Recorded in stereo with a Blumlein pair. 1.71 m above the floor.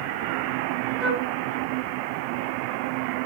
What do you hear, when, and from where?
1.0 s a flute: 30° right, 1.5 m